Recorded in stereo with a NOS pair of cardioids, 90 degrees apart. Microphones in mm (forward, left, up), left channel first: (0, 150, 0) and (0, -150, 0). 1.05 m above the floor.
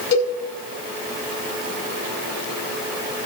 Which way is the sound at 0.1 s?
55° left.